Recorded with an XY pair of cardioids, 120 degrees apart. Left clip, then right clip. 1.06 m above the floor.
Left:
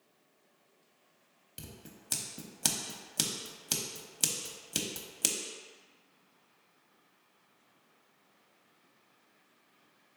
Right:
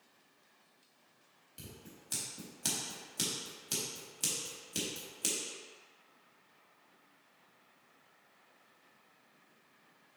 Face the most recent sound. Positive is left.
turn(degrees=45)